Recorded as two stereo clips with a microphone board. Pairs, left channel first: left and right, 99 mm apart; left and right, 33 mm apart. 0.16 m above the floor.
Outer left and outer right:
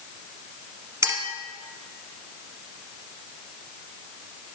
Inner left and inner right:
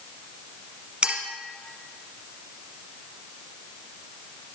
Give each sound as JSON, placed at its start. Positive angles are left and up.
{"t": 1.0, "sound": "a clink", "side_deg": -25, "distance_m": 1.4}